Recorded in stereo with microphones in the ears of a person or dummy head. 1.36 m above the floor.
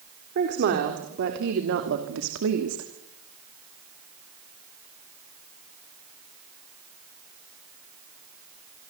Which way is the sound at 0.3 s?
55° right (ahead or behind).